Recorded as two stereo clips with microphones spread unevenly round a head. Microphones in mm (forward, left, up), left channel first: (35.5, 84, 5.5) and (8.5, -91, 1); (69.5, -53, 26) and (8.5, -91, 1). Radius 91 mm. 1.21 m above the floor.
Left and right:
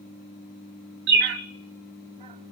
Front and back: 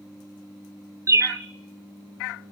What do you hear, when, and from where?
1.1 s a bird: 95° right, 1.4 m